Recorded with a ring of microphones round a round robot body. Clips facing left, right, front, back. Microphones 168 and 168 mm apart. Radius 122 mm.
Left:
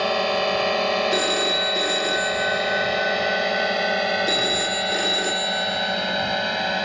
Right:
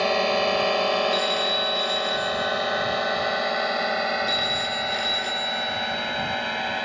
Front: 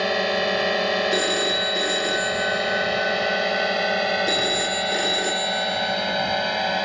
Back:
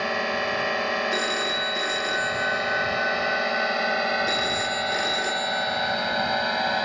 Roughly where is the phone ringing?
Ahead left.